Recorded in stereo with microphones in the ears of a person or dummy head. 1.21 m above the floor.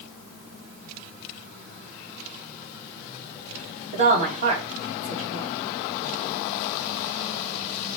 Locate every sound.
3.9 s a woman speaking: 35° right (ahead or behind), 1.7 m